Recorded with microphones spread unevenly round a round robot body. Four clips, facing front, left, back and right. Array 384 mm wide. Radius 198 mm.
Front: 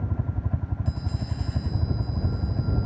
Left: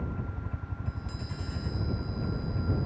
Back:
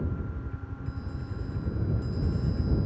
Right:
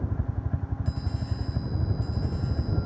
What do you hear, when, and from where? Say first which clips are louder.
0.0 s a helicopter: right 3 dB, front 3 dB; 25° right; by 2.9 s 30° right